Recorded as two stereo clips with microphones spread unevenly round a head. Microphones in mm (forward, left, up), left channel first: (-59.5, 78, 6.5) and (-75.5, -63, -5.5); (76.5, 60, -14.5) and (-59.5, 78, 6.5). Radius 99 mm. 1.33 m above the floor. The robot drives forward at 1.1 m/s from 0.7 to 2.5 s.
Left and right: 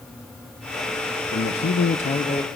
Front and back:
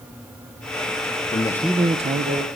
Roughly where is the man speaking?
Ahead left.